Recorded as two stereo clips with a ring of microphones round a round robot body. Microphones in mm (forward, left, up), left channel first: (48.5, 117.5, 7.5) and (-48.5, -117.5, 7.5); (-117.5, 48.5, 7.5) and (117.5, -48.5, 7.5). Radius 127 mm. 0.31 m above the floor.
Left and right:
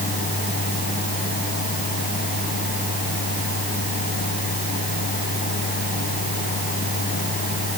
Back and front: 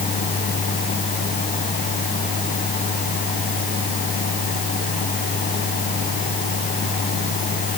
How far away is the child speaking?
I don't hear a child speaking.